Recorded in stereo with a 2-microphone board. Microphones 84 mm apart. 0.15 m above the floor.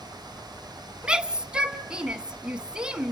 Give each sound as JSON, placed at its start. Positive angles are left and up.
{"t": 1.0, "sound": "a shout", "side_deg": -10, "distance_m": 1.0}